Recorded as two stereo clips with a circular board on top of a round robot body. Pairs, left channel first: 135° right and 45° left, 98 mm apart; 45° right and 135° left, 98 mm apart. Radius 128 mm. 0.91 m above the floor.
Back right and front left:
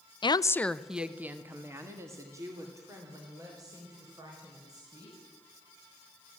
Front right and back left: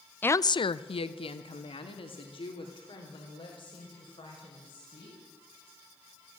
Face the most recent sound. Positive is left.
turn(degrees=-10)